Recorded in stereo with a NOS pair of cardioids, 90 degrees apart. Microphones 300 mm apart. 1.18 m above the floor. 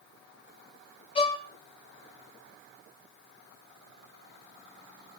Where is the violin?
20° left, 2.5 m.